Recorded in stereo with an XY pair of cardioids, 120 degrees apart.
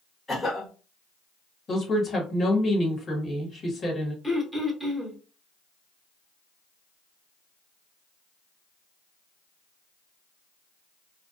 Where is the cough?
15° left, 1.1 m.